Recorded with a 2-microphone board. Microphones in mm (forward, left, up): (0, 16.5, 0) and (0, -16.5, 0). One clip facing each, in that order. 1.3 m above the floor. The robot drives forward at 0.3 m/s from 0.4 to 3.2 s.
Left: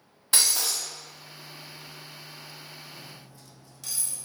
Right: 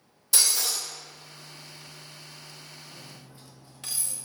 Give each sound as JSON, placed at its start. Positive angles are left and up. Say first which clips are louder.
{"t": 0.3, "sound": "breaking glass", "louder": "even", "side_deg": 50, "distance_m": 1.8}
{"t": 2.9, "sound": "cutlery clinking", "louder": "left 1 dB", "side_deg": -45, "distance_m": 0.5}